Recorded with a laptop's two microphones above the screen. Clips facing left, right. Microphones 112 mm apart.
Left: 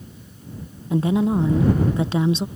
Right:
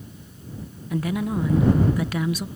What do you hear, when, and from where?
0.9 s a woman speaking: 25° left (ahead or behind)